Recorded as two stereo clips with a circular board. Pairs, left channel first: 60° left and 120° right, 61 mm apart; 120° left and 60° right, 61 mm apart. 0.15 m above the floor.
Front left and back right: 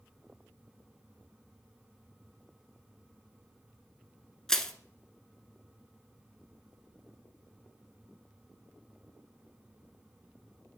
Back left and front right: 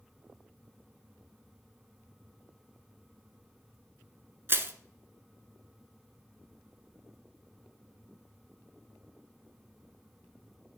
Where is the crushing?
20° right, 0.8 m.